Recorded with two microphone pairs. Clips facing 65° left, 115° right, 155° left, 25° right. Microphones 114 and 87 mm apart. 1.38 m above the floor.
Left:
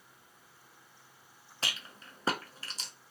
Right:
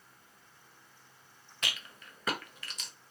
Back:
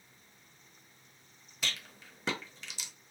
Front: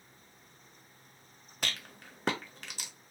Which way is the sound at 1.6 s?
10° left.